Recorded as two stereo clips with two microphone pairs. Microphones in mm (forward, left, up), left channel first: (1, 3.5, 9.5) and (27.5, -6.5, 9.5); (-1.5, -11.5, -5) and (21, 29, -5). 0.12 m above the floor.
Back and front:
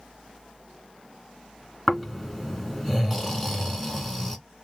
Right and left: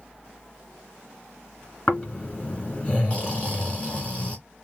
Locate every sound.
1.9 s snoring: 130° right, 1.7 m